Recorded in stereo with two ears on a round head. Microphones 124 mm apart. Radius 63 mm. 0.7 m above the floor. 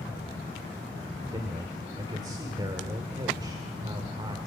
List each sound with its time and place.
1.3 s a man speaking: 30° right (ahead or behind), 1.8 m